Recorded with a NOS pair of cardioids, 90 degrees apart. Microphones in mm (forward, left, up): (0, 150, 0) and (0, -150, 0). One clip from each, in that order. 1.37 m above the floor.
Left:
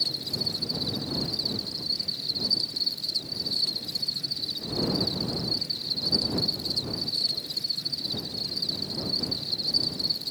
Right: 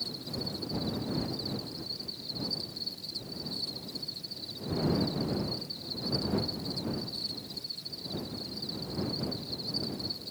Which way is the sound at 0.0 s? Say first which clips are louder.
Left 9 dB; 50° left.